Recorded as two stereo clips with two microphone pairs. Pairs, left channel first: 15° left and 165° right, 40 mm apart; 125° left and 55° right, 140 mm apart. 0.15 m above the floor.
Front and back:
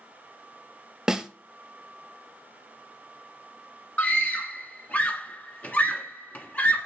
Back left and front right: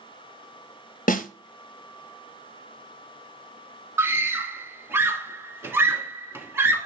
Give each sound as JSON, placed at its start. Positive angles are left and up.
{"t": 1.1, "sound": "a snare drum", "azimuth_deg": 120, "distance_m": 0.7}
{"t": 4.0, "sound": "a scream", "azimuth_deg": 10, "distance_m": 1.7}